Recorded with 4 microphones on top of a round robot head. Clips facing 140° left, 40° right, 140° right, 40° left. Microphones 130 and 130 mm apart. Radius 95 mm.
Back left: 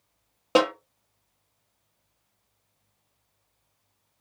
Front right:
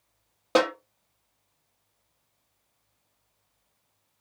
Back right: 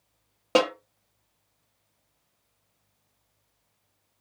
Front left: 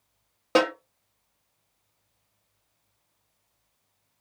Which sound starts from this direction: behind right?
A snare drum, at 0.6 s.